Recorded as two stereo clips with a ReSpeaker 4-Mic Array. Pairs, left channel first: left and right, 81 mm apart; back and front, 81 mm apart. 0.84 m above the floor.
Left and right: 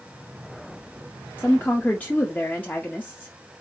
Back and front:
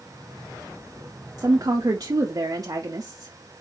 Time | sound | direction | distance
1.4 | a woman speaking | 25° left | 0.6 m